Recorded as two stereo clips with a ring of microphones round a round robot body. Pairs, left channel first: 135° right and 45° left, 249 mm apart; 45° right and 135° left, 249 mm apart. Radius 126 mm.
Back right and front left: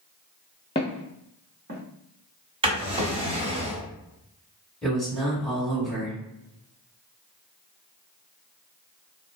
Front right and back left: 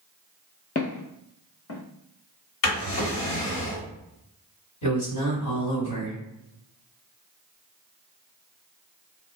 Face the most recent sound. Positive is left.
turn(degrees=-45)